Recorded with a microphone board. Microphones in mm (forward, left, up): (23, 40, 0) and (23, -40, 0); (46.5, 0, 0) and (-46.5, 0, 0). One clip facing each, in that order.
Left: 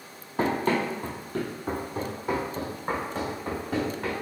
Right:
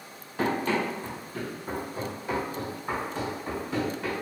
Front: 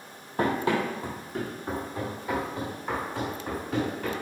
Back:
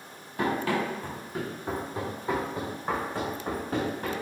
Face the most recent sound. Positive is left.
turn(degrees=135)